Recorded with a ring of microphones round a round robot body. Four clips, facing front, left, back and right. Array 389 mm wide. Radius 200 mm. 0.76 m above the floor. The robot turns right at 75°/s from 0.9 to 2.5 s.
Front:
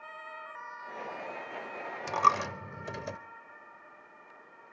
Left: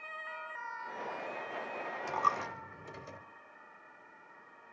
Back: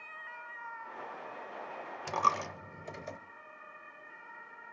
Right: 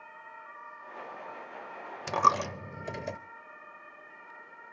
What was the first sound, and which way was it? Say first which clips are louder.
A dropped coin: right 7 dB, front 4 dB; 90° right.